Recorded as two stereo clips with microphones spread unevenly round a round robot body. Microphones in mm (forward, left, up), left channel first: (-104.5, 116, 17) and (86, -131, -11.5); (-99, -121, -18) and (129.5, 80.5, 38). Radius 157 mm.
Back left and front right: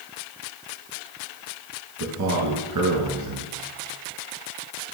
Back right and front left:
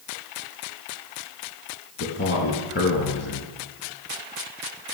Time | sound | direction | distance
2.0 | a man speaking | 85° right | 4 m